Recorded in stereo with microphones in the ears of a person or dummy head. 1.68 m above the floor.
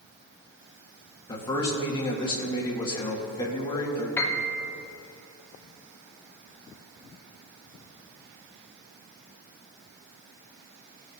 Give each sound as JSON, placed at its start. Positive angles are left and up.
{"t": 1.3, "sound": "a man speaking", "side_deg": 25, "distance_m": 1.5}
{"t": 4.2, "sound": "a piano", "side_deg": 10, "distance_m": 0.8}